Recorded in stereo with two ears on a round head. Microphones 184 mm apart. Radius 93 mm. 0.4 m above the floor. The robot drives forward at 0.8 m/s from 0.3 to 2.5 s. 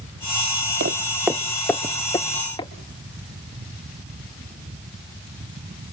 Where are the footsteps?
50° right (ahead or behind), 0.5 m; by 2.7 s 20° left (ahead or behind), 2.5 m.